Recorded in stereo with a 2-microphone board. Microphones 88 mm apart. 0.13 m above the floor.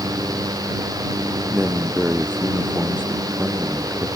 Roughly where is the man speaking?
Centre.